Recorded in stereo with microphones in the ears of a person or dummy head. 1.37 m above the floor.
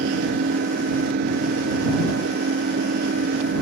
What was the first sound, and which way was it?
An engine running, 55° right (ahead or behind).